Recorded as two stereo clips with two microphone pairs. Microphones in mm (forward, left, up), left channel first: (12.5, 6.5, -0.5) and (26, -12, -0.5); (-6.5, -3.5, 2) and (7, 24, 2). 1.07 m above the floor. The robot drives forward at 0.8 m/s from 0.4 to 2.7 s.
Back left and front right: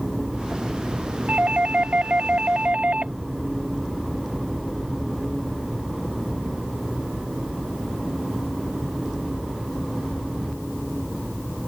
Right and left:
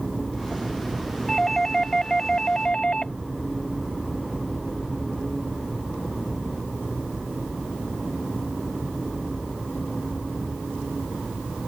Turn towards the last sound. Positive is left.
turn(degrees=-50)